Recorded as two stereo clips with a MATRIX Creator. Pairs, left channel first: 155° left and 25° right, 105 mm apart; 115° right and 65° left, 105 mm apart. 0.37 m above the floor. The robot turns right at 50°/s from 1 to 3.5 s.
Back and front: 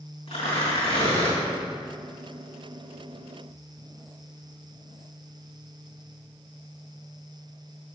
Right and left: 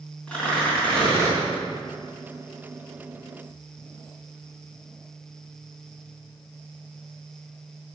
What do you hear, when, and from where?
0.3 s tearing paper: 170° left, 4.5 m; by 1.4 s 175° right, 4.5 m